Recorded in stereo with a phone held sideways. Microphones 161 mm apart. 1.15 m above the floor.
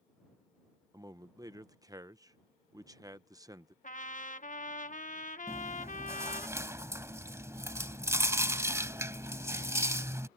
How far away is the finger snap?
No finger snap in this recording.